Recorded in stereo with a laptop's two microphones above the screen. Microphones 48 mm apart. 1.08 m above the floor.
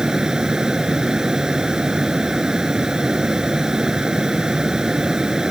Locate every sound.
0.0 s a fan: 10° right (ahead or behind)